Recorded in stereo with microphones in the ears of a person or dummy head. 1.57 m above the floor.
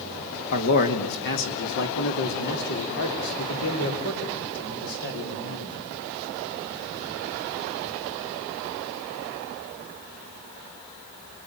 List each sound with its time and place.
0.5 s a man speaking: 55° left (ahead or behind), 1.8 m; by 5.8 s 85° left, 6 m